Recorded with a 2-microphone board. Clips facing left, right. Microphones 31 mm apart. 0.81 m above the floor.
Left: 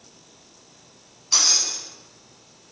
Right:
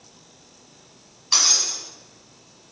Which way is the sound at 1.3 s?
35° right (ahead or behind).